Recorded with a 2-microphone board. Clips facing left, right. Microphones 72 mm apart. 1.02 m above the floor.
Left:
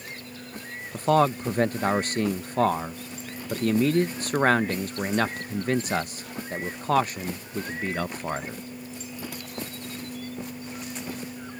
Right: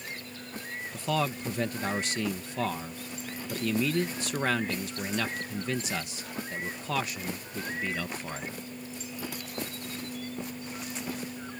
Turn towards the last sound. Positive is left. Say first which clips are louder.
# left 9 dB
turn(degrees=45)  # may be behind; listen again after turning